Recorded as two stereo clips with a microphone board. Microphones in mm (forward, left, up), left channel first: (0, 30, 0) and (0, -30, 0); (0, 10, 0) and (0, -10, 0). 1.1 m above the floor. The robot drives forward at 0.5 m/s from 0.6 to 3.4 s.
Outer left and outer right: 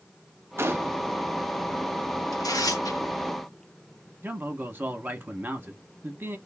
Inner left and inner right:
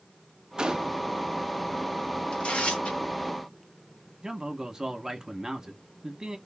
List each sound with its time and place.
0.6 s a gunshot: 40° right (ahead or behind), 0.5 m; by 1.0 s 35° right (ahead or behind), 0.6 m
2.3 s tearing paper: 80° left, 1.1 m
4.2 s a man speaking: 30° right (ahead or behind), 0.8 m